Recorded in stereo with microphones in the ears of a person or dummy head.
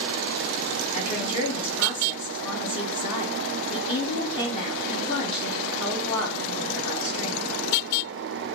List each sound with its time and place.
0.9 s a woman speaking: 30° left (ahead or behind), 2.5 m